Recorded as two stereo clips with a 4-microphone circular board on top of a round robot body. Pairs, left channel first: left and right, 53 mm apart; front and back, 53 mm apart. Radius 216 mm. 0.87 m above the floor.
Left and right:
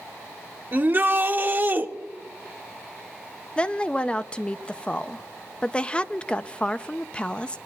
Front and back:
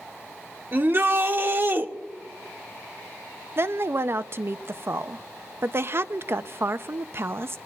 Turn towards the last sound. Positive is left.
turn(degrees=155)